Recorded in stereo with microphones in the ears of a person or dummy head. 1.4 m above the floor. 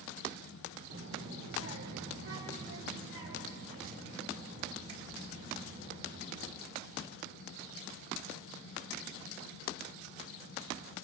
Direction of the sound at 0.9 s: 65° right (ahead or behind).